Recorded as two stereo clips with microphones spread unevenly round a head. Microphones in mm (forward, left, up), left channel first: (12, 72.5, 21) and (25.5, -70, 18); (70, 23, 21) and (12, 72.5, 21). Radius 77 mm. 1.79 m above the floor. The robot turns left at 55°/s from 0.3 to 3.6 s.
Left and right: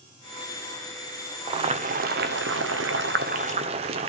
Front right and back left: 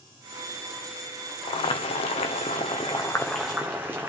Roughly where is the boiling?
Ahead right.